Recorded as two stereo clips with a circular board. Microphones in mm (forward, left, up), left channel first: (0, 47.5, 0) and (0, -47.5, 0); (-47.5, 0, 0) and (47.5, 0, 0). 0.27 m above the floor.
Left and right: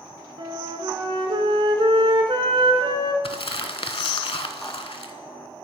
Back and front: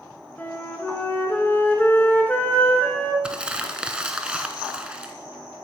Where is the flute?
110° right, 1.0 m.